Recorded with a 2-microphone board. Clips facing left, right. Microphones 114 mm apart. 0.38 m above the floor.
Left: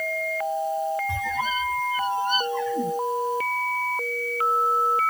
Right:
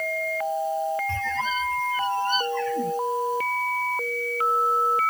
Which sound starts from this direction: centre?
A squeak, at 1.1 s.